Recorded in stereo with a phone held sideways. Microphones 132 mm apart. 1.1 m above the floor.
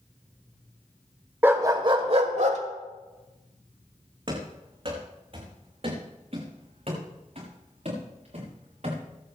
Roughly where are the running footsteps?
Right.